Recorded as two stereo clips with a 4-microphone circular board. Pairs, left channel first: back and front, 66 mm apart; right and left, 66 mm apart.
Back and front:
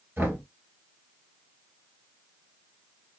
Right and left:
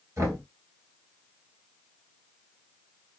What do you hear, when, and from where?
0.2 s knocking: 55° left, 1.9 m